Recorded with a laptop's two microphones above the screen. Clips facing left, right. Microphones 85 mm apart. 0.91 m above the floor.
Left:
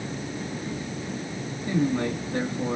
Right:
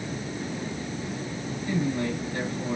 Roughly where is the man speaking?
Left.